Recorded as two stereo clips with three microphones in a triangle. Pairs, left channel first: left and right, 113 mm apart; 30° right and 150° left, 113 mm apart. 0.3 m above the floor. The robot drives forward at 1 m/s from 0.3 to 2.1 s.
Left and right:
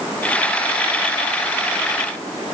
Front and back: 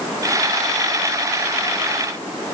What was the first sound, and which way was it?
Only background noise.